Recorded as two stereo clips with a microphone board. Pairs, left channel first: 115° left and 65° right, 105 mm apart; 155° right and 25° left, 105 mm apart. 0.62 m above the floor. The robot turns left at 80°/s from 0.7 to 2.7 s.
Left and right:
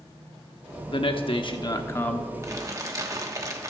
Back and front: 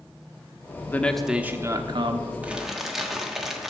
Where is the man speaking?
140° left, 0.9 m; by 2.3 s 25° left, 0.9 m.